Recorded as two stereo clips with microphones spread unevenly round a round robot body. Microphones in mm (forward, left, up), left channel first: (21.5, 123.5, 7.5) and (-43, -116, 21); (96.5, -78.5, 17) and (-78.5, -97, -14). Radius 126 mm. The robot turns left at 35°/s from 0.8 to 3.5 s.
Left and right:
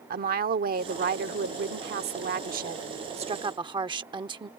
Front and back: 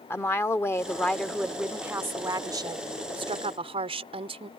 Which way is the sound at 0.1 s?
75° right.